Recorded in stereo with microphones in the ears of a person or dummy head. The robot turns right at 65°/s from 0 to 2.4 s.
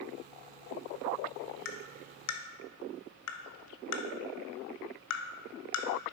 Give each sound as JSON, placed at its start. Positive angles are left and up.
{"t": 1.6, "sound": "tapping", "side_deg": 55, "distance_m": 0.6}